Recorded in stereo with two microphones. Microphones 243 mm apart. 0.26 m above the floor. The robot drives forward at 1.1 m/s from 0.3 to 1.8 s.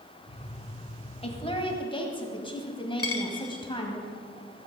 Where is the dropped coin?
70° left (ahead or behind), 1.2 m.